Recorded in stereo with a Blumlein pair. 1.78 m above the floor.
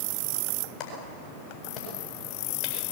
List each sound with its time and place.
0.8 s a clap: 35° left, 8 m